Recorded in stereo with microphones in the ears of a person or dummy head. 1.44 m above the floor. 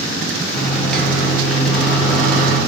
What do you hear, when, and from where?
0.5 s a microwave: 5° left (ahead or behind), 0.6 m